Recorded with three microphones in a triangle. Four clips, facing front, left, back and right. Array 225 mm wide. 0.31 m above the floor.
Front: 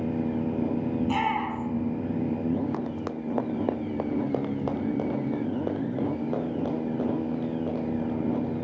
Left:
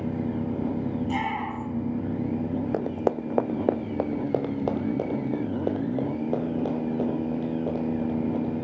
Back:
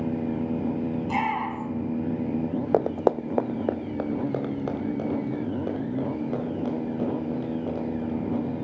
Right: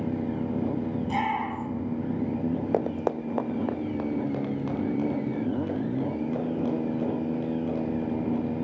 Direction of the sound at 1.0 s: Straight ahead.